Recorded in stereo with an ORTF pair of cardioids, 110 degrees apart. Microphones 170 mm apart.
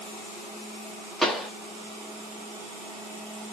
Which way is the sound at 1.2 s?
Straight ahead.